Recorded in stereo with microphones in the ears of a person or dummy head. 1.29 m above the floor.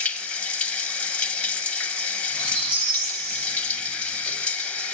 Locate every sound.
0.0 s running water: 10° left (ahead or behind), 1.2 m
2.3 s a squeak: 85° right, 4.5 m